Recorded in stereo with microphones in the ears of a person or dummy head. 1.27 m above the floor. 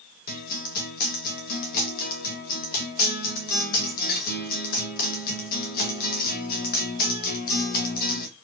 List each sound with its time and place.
0.3 s a guitar: 45° left (ahead or behind), 0.8 m